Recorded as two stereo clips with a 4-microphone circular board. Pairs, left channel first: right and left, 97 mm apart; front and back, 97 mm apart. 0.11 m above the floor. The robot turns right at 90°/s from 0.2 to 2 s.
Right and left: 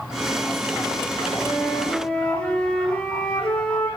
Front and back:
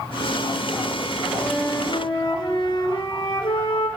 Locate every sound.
1.4 s a flute: 75° right, 1.4 m; by 3.9 s 15° right, 1.4 m